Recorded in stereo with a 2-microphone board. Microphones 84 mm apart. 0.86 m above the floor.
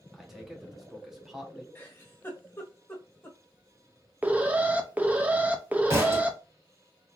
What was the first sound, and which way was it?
A man speaking, 5° right (ahead or behind).